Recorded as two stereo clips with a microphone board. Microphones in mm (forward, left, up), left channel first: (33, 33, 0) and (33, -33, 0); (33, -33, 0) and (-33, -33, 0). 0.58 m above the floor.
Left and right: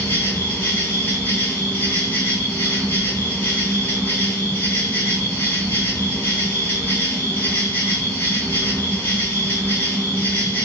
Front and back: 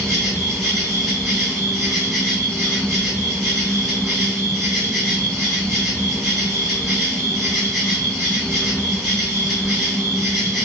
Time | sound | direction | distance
0.0 | an insect | 95° left | 1.3 m